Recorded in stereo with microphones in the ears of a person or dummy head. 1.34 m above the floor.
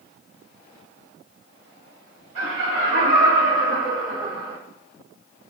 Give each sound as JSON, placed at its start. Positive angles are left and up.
{"t": 2.4, "sound": "laughter", "side_deg": -75, "distance_m": 2.0}